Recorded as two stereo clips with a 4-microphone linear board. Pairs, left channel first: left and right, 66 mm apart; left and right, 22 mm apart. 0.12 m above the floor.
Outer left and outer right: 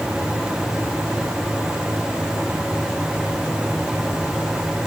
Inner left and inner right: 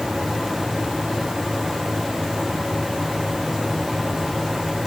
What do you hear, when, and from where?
Only background noise.